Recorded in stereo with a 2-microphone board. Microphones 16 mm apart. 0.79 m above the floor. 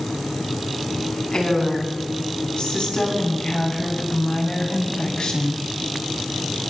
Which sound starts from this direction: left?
A woman speaking, at 1.3 s.